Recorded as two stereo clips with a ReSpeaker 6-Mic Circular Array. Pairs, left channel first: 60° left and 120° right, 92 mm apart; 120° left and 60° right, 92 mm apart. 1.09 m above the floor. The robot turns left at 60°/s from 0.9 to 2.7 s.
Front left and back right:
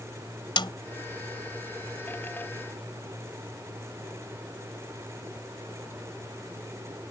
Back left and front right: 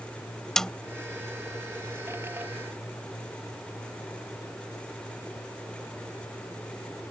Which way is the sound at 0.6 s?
35° left.